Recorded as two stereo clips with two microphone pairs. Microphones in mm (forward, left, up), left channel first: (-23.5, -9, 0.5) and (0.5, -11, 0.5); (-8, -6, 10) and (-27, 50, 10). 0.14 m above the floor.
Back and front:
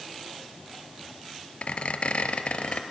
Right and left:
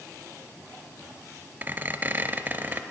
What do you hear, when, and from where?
1.6 s a squeak: 160° left, 0.6 m